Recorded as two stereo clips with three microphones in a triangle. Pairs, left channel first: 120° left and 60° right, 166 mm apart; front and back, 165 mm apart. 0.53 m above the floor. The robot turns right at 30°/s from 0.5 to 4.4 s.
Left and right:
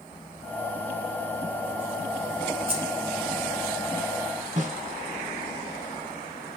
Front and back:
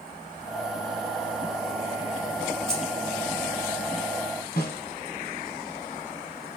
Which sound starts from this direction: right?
Keys jangling, at 2.7 s.